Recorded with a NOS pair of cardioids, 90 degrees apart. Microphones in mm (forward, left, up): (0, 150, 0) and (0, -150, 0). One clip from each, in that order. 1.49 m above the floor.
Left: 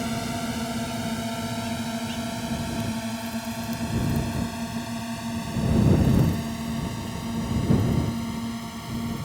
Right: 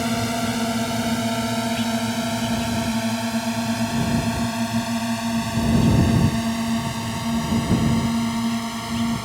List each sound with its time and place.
0.0 s a drone: 45° right; by 9.2 s 60° right